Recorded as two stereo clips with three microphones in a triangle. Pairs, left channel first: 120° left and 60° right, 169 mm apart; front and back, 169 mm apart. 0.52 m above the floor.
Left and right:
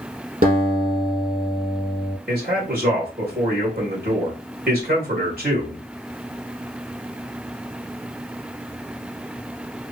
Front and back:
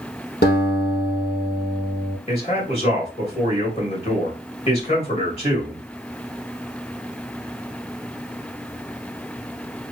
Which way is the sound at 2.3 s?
50° right.